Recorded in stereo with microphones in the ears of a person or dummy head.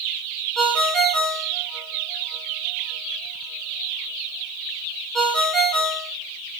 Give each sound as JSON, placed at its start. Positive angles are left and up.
{"t": 0.6, "sound": "a ringtone", "side_deg": 5, "distance_m": 2.0}